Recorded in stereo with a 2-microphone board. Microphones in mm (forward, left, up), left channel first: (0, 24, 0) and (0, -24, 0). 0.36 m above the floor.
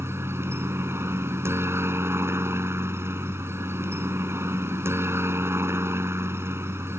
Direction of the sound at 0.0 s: 65° right (ahead or behind).